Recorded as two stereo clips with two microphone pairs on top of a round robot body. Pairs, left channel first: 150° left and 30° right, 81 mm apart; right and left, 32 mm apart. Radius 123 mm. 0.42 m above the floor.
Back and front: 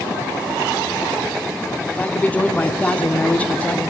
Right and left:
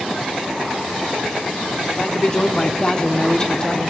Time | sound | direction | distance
1.9 | a man speaking | 140° right | 1.2 m